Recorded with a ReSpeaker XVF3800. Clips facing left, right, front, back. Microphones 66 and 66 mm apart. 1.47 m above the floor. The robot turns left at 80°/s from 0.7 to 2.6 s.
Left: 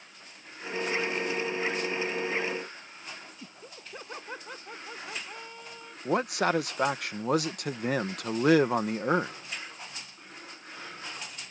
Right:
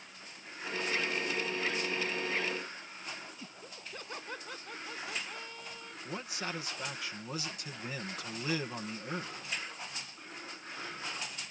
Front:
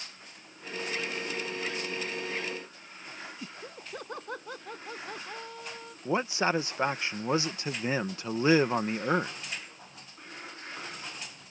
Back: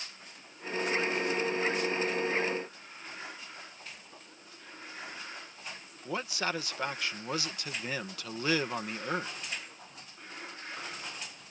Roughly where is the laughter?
Ahead.